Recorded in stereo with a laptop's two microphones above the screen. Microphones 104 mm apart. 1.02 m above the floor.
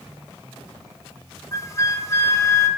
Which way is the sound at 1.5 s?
25° left (ahead or behind).